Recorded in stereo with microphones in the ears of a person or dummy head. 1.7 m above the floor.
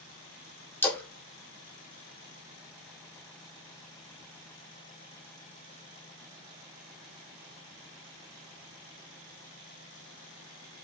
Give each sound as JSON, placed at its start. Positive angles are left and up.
{"t": 0.8, "sound": "a splash", "side_deg": 10, "distance_m": 1.8}